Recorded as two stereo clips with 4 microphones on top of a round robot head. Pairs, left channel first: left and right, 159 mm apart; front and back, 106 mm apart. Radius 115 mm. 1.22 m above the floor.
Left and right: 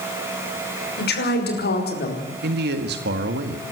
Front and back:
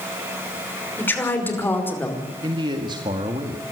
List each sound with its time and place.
1.0 s a woman speaking: 75° left, 6 m; by 2.3 s 70° left, 4 m
2.4 s a man speaking: 120° right, 1.8 m